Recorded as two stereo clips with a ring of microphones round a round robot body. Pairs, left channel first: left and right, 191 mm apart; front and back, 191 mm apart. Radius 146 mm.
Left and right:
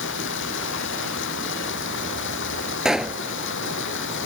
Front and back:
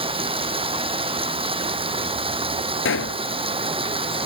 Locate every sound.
0.0 s running water: 120° left
2.9 s a pop: 5° right